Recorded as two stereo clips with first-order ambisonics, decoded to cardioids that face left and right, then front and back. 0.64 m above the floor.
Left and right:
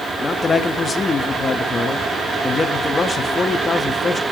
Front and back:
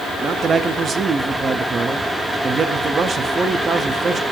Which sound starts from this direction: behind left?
A man speaking, at 0.2 s.